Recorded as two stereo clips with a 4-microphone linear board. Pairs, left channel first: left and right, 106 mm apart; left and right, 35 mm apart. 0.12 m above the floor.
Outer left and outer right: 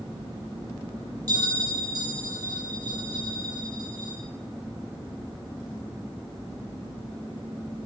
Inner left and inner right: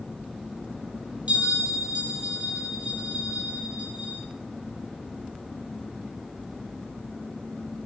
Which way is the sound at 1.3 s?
40° right (ahead or behind).